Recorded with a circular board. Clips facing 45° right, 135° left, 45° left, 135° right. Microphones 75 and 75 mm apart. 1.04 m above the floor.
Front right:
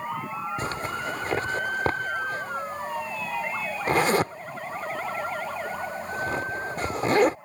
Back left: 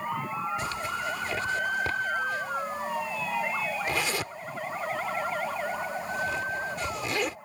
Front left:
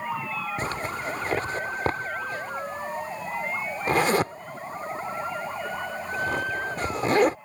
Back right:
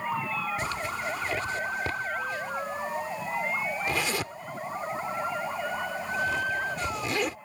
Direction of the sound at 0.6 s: Straight ahead.